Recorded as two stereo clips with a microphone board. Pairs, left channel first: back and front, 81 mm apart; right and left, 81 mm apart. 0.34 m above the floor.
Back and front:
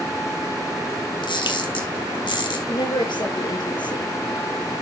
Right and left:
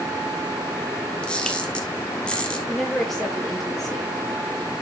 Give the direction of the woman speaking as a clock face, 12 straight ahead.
6 o'clock.